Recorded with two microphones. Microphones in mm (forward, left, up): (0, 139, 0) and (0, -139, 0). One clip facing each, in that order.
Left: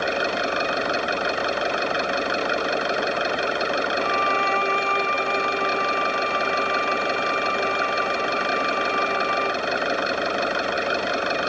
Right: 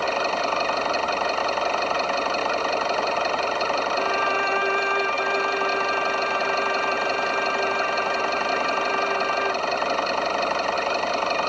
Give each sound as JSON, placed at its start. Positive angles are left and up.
{"t": 0.0, "sound": "an engine running", "side_deg": 15}
{"t": 4.0, "sound": "a violin", "side_deg": -10}